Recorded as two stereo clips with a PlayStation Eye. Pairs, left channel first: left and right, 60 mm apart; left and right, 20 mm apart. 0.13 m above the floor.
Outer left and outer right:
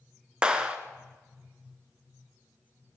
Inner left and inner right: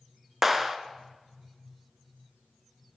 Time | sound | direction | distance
0.4 | a clap | 15° right (ahead or behind) | 1.2 m